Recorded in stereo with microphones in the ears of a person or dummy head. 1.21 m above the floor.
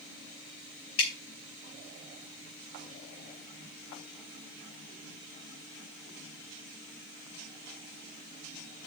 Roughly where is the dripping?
Left.